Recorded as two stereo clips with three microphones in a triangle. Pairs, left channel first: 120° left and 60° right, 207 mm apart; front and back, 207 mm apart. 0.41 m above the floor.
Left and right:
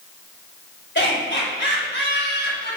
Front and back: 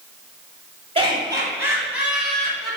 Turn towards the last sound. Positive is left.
turn(degrees=85)